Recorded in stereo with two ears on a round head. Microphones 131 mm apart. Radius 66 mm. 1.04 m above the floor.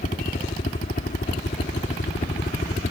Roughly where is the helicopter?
Left.